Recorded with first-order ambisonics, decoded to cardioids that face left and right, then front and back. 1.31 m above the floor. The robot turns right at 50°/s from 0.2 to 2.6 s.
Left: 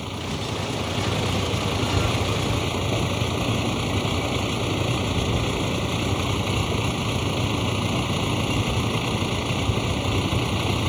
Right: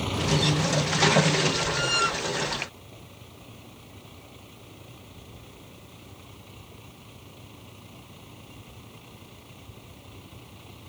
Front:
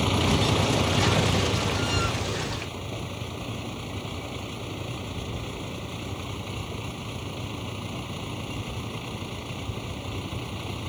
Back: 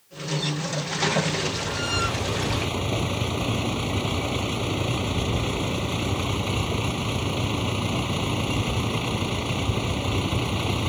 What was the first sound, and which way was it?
A vehicle, 5° right.